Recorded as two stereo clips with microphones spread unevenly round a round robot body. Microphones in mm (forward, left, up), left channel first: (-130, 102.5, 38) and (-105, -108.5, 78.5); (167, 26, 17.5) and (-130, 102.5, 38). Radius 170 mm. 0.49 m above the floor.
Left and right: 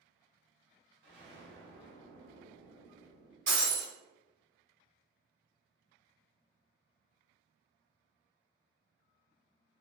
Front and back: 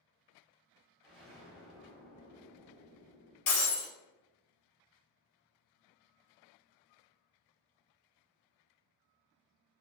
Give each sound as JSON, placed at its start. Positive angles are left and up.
{"t": 1.0, "sound": "an explosion", "azimuth_deg": -90, "distance_m": 1.2}
{"t": 3.5, "sound": "breaking glass", "azimuth_deg": -25, "distance_m": 2.0}